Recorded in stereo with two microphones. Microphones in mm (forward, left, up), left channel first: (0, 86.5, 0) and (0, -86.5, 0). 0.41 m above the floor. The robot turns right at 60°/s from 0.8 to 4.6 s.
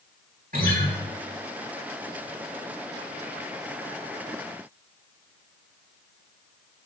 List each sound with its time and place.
0.5 s a guitar: 60° right (ahead or behind), 3 m